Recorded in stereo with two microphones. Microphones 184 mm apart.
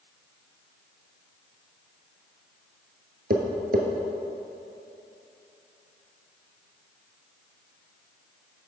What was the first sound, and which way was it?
Tapping, 60° right (ahead or behind).